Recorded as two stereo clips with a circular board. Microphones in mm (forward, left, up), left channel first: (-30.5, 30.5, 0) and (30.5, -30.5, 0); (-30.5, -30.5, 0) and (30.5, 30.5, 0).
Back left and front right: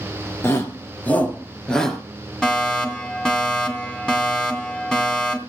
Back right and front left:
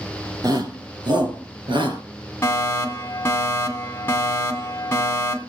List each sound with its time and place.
0.4 s a shout: 80° left, 3 m; by 2.0 s 50° left, 3.5 m
2.4 s a fire alarm: 150° right, 2.5 m